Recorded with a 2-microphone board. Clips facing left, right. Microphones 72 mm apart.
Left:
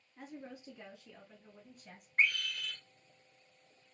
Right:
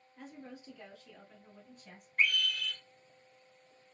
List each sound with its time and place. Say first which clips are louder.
0.2 s a woman speaking: left 1 dB; 25° left (ahead or behind), 1.3 m; by 2.1 s centre (ahead or behind), 1.3 m
2.2 s a scream: right 1 dB; 35° left (ahead or behind), 1.6 m